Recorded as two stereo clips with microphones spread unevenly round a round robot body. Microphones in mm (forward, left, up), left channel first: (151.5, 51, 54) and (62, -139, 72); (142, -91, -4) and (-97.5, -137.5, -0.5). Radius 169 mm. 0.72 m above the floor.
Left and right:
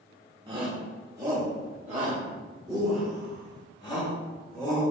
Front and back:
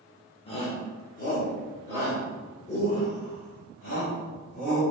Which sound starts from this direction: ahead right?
A shout, at 0.5 s.